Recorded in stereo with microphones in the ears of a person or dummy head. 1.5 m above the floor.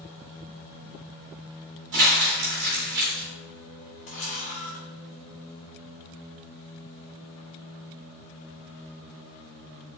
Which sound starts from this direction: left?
A camera shutter, at 4.1 s.